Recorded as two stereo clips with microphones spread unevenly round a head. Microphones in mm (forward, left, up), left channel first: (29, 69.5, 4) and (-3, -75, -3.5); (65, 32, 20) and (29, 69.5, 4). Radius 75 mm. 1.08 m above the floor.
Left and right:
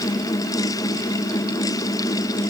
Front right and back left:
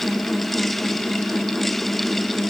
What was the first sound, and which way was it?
Only background noise.